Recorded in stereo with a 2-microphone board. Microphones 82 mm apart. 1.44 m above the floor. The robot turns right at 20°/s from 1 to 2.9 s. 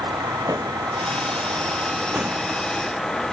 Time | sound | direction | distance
0.0 | a vehicle | 40° right | ?